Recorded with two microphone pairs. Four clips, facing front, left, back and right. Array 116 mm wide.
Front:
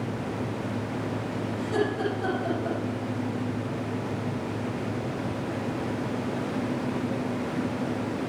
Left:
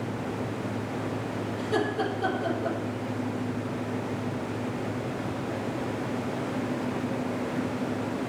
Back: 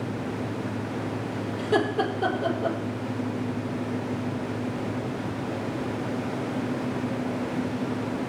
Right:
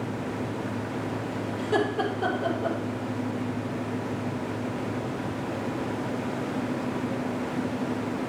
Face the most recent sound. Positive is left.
turn(degrees=-155)